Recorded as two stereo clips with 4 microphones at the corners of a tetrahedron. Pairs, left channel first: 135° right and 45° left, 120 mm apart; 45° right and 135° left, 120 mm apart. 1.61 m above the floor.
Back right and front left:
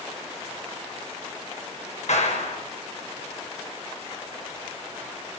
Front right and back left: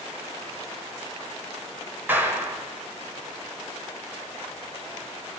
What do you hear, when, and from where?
2.1 s a clap: 150° right, 6.5 m